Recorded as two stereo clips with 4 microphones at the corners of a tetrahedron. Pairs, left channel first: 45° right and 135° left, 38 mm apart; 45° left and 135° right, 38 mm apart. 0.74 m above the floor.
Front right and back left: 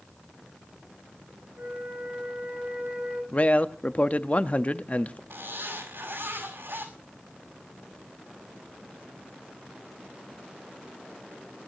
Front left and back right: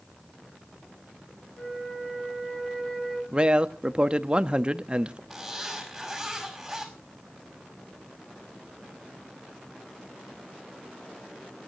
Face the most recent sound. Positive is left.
turn(degrees=140)